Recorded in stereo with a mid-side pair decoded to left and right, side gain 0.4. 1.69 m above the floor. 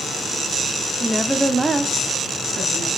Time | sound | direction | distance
1.0 | a woman speaking | 15° left | 0.5 m